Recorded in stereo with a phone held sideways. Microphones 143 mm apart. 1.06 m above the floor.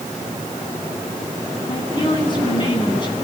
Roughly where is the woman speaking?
Left.